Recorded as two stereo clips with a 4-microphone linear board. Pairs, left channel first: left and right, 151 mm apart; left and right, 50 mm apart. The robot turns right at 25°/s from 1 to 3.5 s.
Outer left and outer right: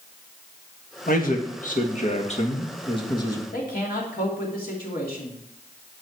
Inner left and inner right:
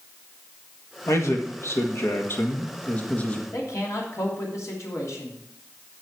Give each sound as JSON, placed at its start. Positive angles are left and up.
{"t": 1.1, "sound": "a man speaking", "azimuth_deg": 100, "distance_m": 1.8}
{"t": 3.5, "sound": "a man speaking", "side_deg": 80, "distance_m": 3.0}